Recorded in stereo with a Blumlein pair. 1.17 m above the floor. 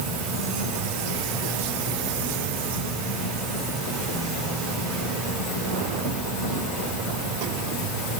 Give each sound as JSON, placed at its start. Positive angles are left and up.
{"t": 0.0, "sound": "an insect", "azimuth_deg": 10, "distance_m": 5.0}